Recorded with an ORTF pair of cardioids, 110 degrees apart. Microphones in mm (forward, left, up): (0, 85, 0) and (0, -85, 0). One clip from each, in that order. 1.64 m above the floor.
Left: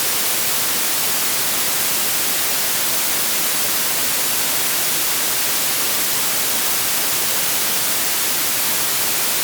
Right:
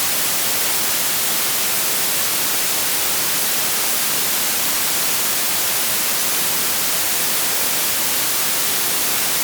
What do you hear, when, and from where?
Only background noise.